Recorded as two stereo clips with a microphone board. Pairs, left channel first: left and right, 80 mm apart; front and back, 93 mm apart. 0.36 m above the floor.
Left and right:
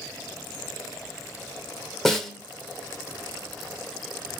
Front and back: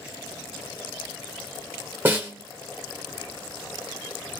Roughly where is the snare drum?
Behind.